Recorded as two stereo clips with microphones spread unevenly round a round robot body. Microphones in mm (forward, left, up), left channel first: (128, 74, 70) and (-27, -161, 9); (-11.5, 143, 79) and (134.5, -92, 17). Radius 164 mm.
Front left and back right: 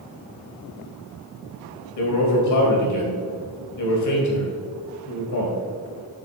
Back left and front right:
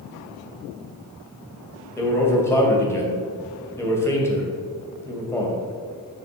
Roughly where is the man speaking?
Ahead left.